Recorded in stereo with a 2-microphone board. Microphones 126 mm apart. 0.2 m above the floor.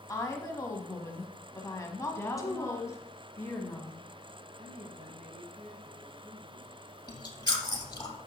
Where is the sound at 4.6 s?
70° right (ahead or behind), 3.5 m.